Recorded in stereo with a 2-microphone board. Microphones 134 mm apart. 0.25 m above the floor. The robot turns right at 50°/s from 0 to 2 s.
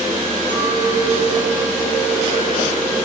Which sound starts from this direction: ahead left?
A clink, at 0.5 s.